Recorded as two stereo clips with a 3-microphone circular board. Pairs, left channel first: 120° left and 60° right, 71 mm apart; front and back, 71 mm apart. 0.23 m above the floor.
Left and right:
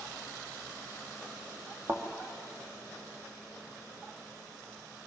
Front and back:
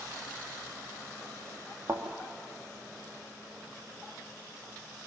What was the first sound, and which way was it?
A thud, 115° right.